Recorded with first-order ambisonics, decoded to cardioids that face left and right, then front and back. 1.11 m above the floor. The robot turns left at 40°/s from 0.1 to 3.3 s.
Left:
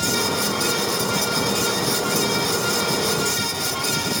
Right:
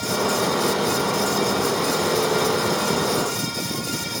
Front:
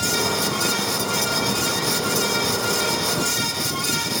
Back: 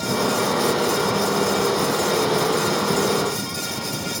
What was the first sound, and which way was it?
Only background noise.